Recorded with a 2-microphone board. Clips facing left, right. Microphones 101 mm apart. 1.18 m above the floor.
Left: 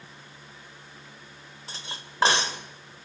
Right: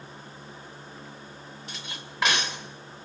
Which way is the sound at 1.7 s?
30° left (ahead or behind).